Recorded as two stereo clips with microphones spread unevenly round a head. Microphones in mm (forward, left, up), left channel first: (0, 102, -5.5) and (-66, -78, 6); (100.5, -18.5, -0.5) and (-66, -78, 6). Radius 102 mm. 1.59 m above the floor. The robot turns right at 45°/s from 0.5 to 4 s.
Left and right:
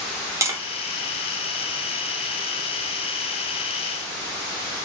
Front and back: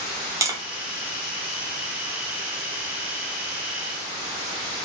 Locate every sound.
0.4 s tapping: 140° right, 0.5 m; by 0.6 s 135° right, 0.5 m